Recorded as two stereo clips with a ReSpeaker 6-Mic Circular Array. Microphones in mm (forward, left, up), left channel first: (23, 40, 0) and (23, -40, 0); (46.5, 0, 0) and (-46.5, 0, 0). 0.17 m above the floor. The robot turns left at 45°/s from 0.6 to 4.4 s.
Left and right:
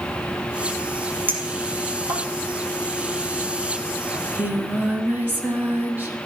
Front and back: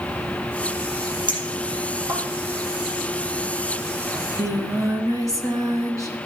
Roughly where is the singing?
Behind right.